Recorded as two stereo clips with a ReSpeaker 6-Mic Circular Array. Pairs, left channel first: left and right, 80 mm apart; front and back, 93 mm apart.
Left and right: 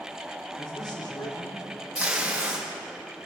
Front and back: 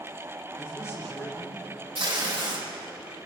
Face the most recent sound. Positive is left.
turn(degrees=-165)